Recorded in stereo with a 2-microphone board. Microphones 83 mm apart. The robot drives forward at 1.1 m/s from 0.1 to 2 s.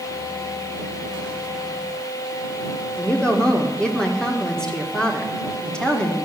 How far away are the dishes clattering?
I don't hear dishes clattering.